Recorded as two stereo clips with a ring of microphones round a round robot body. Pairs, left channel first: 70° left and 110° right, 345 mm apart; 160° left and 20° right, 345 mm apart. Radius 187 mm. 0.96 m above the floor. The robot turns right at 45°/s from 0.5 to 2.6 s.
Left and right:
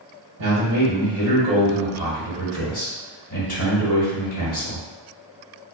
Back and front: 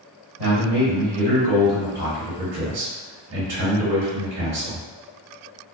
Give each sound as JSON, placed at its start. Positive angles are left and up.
{"t": 0.4, "sound": "a man speaking", "azimuth_deg": -65, "distance_m": 1.3}